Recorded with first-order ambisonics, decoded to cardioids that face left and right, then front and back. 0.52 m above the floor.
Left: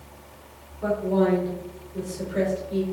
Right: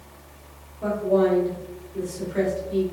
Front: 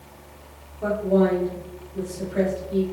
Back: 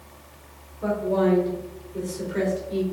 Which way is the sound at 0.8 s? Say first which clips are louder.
Right 2 dB, front 2 dB; 30° right.